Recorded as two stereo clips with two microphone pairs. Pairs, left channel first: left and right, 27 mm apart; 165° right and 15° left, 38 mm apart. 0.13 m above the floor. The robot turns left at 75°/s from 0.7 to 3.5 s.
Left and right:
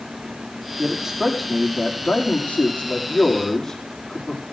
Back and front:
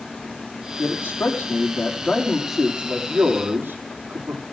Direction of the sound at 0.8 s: 135° right.